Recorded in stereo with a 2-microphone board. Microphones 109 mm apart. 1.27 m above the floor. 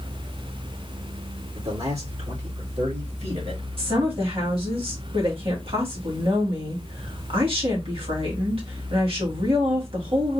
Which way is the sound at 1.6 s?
70° right (ahead or behind).